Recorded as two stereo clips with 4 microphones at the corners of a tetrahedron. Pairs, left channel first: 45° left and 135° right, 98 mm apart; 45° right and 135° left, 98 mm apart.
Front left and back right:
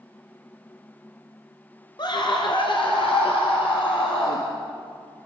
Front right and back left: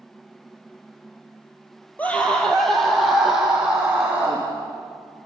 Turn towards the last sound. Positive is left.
turn(degrees=60)